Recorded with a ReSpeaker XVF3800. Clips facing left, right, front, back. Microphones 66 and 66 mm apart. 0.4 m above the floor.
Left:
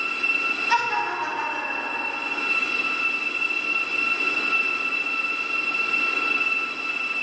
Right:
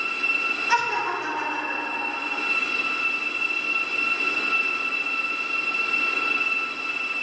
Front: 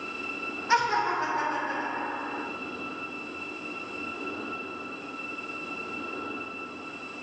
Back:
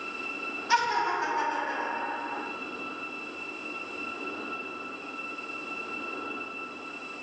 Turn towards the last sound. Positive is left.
turn(degrees=15)